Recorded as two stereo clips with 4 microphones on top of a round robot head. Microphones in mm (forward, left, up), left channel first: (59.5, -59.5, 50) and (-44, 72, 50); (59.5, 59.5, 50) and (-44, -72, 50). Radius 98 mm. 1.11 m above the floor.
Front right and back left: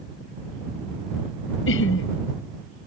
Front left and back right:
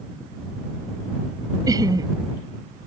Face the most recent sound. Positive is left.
turn(degrees=-60)